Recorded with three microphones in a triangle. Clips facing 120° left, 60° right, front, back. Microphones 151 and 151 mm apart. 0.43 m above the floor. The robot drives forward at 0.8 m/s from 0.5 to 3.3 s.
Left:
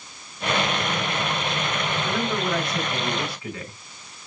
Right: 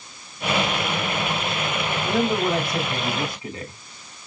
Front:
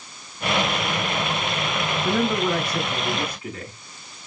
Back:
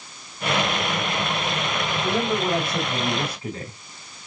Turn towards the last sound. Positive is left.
turn(degrees=-130)